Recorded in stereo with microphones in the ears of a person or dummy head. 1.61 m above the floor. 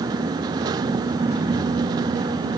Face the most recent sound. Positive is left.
No sound to turn to.